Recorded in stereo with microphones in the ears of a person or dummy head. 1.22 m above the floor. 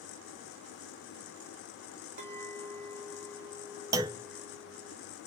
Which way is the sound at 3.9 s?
15° right (ahead or behind).